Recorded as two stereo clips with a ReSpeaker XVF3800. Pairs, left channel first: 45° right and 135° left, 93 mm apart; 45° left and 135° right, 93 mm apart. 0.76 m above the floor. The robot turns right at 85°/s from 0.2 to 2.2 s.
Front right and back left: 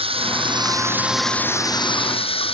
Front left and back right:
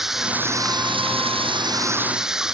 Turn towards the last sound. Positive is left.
turn(degrees=-50)